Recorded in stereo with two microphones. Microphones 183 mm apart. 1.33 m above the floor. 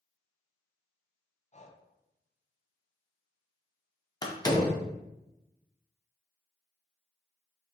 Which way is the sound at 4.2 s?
20° left (ahead or behind).